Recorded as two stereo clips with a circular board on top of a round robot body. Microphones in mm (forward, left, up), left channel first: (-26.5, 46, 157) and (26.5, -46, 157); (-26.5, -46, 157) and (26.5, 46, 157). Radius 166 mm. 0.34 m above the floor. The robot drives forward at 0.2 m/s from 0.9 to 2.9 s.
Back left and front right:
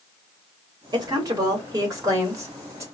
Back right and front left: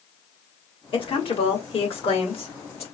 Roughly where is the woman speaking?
Right.